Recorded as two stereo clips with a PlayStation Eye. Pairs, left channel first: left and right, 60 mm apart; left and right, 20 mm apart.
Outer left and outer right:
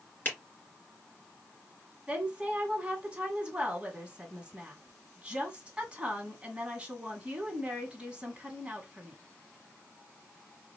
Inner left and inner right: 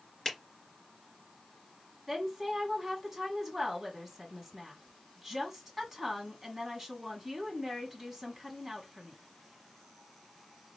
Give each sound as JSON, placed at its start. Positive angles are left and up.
{"t": 0.2, "sound": "a finger snap", "side_deg": 30, "distance_m": 3.0}
{"t": 2.1, "sound": "a woman speaking", "side_deg": -20, "distance_m": 1.6}